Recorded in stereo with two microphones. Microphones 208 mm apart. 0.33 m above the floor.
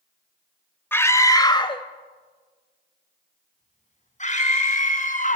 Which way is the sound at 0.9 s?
10° left (ahead or behind).